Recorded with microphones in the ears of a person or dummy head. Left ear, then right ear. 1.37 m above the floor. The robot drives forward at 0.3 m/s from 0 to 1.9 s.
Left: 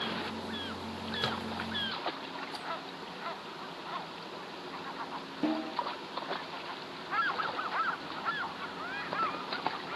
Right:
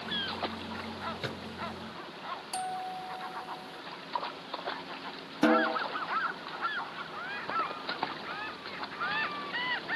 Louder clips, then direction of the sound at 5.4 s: Right 9 dB; 50° right (ahead or behind).